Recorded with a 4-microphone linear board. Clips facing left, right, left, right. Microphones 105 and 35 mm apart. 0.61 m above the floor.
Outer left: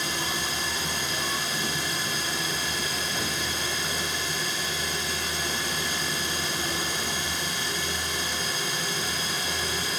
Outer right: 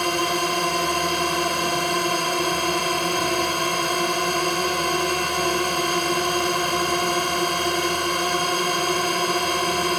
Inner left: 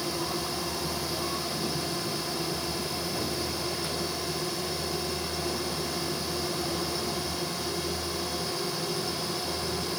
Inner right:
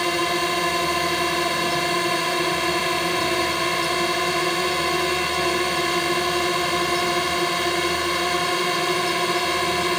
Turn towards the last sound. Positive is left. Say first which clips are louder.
# outer right 9 dB, inner right 10 dB
turn(degrees=-60)  # may be behind; listen again after turning